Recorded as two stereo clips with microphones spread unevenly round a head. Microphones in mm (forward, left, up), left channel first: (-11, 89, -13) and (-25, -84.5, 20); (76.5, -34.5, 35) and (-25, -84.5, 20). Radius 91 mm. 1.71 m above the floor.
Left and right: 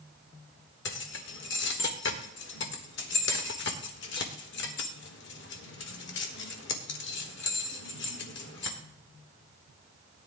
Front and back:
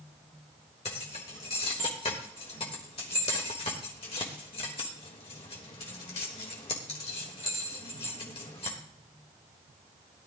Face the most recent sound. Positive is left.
turn(degrees=65)